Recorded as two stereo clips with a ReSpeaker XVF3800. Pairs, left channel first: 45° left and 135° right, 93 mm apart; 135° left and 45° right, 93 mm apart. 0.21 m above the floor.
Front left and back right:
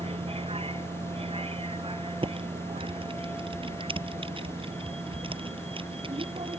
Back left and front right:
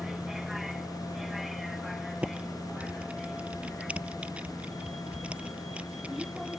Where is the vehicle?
130° right; by 6.6 s 135° right.